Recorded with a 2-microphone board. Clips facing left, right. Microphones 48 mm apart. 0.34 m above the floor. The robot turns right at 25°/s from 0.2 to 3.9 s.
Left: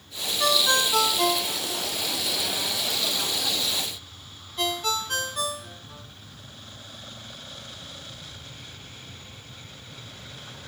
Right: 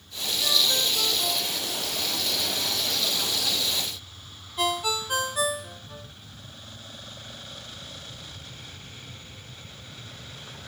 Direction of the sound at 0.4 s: 70° left (ahead or behind).